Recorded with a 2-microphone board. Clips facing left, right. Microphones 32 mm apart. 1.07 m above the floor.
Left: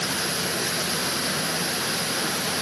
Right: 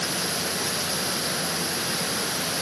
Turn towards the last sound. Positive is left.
No sound to turn to.